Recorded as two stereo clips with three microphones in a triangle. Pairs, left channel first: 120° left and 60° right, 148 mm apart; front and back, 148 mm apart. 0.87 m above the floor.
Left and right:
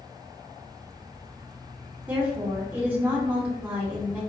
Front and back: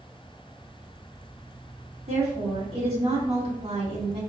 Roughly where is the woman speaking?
Behind right.